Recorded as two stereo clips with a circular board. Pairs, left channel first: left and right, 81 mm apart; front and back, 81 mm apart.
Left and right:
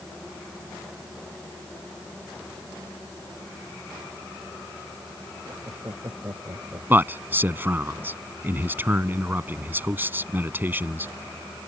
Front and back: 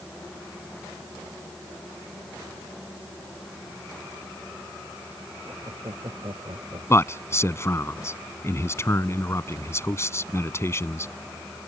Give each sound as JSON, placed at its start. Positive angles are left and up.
{"t": 5.5, "sound": "laughter", "azimuth_deg": -145}
{"t": 6.9, "sound": "a man speaking", "azimuth_deg": -35}